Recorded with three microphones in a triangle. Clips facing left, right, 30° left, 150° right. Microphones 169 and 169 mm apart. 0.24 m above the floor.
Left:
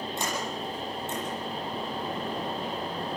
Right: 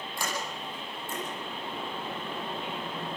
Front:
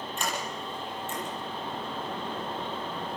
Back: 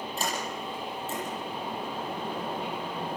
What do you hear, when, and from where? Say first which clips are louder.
0.2 s a sliding door: left 1 dB, back 1 dB; 155° left, 9 m